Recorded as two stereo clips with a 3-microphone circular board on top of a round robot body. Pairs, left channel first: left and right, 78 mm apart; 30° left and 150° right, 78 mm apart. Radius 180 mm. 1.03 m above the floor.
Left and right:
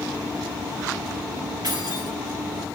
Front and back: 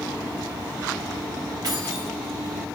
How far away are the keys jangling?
About 6 m.